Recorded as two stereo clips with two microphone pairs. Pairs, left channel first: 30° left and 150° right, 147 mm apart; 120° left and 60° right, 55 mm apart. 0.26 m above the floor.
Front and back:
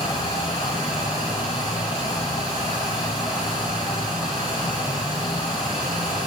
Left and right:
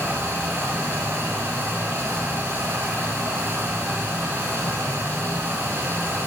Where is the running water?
20° right, 7 m.